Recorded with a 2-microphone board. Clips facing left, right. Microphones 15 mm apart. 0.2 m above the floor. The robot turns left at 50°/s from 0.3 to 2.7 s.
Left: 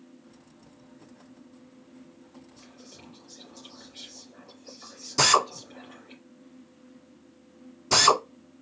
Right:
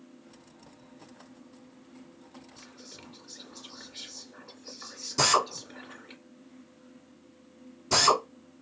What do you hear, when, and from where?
2.6 s whispering: 30° right (ahead or behind), 2 m; by 6.2 s 35° right (ahead or behind), 2 m
5.2 s a drill: 20° left (ahead or behind), 1.2 m